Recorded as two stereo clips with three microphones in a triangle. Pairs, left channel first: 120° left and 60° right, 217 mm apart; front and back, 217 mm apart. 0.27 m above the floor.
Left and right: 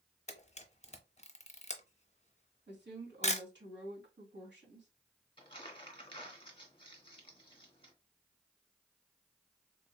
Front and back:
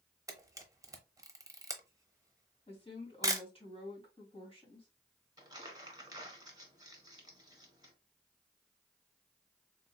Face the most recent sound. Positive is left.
turn(degrees=135)